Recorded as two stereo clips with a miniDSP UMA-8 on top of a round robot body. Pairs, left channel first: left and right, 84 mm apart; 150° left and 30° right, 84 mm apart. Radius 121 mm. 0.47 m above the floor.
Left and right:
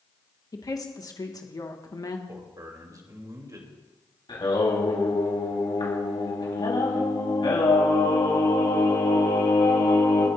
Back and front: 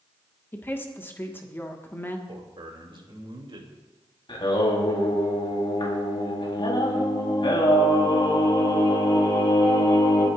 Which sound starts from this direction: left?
A woman speaking, at 0.5 s.